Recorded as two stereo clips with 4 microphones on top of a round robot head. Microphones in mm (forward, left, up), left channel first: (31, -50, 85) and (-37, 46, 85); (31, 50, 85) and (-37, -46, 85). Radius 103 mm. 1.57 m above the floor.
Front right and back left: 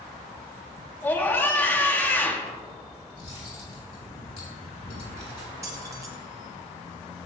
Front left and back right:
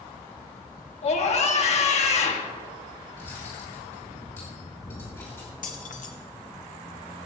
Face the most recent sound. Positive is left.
turn(degrees=60)